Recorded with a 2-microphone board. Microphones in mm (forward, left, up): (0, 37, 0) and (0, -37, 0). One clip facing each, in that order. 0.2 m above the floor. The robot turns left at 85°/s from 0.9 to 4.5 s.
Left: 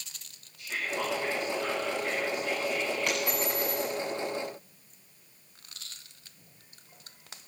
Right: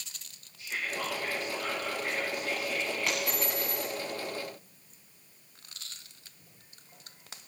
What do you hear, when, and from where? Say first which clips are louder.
0.6 s whispering: left 2 dB; 60° left, 7.5 m; by 3.2 s 135° right, 7.5 m
3.1 s a dropped coin: left 2 dB; 5° right (ahead or behind), 7.5 m; by 3.9 s 65° left (ahead or behind), 7.5 m